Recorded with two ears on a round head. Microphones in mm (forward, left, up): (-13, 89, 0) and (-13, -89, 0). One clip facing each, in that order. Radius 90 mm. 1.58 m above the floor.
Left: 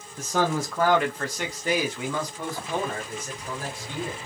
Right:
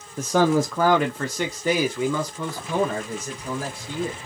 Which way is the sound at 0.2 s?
45° right (ahead or behind).